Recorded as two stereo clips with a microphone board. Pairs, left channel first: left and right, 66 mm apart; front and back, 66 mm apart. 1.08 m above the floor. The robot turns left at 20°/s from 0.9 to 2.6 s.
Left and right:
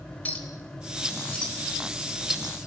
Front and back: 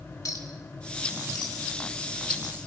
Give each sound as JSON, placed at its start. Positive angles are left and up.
{"t": 0.2, "sound": "a clink", "azimuth_deg": 30, "distance_m": 3.5}